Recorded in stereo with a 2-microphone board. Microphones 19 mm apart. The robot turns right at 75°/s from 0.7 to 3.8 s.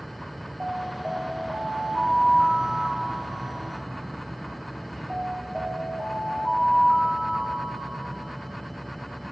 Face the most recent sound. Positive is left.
turn(degrees=180)